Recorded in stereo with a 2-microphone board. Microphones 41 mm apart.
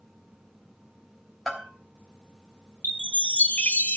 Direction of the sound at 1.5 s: Centre (ahead or behind).